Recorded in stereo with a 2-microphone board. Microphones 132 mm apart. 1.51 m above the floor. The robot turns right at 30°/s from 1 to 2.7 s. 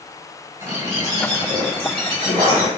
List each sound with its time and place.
0.6 s a bird: 145° right, 1.8 m; by 2.7 s 95° right, 1.8 m